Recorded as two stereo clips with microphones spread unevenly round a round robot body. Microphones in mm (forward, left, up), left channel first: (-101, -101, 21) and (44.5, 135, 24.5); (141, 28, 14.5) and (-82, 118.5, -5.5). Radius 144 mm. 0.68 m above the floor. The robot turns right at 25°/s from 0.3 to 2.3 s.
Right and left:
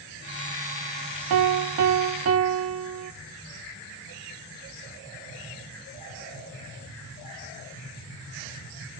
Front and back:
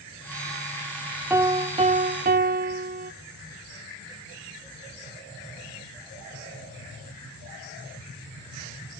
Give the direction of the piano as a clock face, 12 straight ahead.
9 o'clock.